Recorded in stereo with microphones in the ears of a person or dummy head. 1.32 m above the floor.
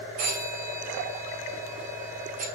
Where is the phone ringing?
45° right (ahead or behind), 2 m.